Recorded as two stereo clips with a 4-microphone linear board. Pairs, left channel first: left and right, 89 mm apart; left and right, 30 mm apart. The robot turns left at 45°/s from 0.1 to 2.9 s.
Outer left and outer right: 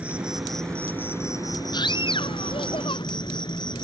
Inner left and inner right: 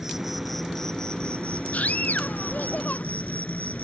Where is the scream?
125° left; by 3.0 s 75° left.